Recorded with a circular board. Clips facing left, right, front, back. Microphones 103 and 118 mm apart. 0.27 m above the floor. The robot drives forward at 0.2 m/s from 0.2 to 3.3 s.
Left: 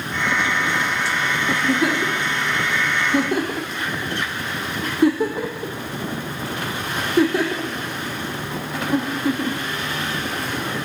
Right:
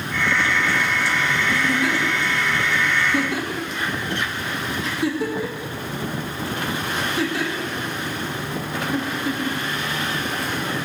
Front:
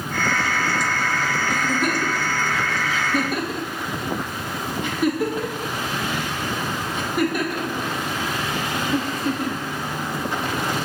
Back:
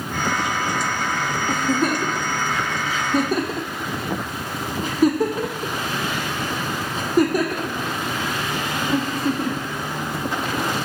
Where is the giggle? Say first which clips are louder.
Left 5 dB, back 4 dB; 120° left, 2.5 m; by 10.9 s 130° left, 2.5 m.